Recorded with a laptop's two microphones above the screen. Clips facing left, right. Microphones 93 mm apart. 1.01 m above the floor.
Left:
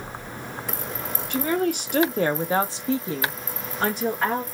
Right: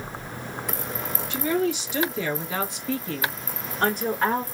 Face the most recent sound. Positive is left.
turn(degrees=-5)  # may be behind; listen again after turning